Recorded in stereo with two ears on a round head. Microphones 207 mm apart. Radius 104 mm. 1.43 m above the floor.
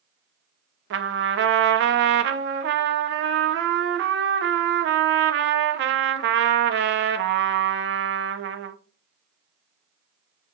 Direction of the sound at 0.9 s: 50° right (ahead or behind).